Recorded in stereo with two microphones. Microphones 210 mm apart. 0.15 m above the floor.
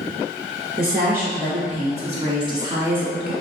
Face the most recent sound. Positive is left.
turn(degrees=0)  # may be behind; listen again after turning